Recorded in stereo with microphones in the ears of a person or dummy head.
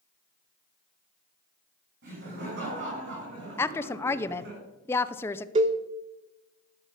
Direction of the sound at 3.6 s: 10° left (ahead or behind).